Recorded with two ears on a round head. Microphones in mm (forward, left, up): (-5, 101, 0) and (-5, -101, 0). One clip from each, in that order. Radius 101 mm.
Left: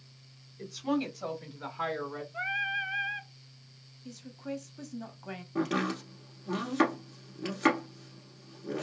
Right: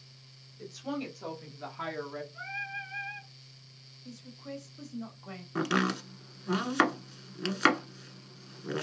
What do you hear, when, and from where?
0.6 s a woman speaking: 10° left (ahead or behind), 1.3 m; by 2.2 s 10° right (ahead or behind), 0.9 m
2.3 s singing: 45° left (ahead or behind), 0.6 m
4.0 s a woman speaking: 15° left (ahead or behind), 0.9 m
5.5 s chopping: 75° right (ahead or behind), 1.1 m